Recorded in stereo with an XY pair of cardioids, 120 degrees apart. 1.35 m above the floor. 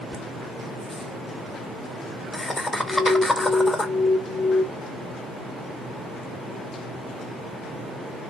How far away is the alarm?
About 0.6 m.